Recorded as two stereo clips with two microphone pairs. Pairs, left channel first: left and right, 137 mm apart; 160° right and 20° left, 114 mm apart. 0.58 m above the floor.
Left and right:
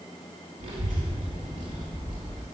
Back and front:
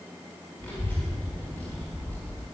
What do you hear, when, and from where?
0.6 s a child speaking: 90° right, 1.6 m